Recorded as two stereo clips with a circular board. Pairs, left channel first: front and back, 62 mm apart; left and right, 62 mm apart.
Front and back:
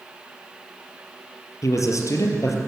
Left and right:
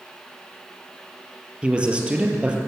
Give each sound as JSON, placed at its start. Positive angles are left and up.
{"t": 1.6, "sound": "a man speaking", "azimuth_deg": -15, "distance_m": 3.0}